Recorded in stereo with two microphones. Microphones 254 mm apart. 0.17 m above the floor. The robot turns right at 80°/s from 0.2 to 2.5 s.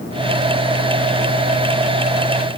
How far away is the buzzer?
No buzzer in this recording.